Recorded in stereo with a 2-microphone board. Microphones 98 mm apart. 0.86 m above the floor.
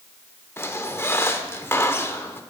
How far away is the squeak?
About 0.7 m.